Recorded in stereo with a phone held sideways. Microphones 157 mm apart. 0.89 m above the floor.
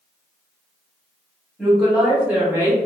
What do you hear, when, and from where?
1.6 s a woman speaking: centre (ahead or behind), 1.8 m; by 2.8 s 25° right (ahead or behind), 1.0 m